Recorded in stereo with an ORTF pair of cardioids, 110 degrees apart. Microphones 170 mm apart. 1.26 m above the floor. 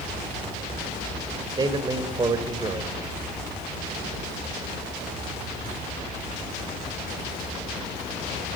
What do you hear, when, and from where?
1.6 s a man speaking: 25° right, 4.5 m